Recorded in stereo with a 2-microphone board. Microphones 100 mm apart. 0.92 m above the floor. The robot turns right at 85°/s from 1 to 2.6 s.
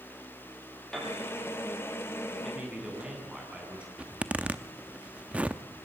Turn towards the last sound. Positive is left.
turn(degrees=-10)  # may be behind; listen again after turning